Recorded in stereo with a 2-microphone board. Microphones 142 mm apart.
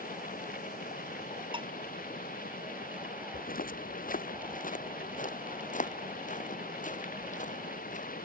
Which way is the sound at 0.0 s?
85° left.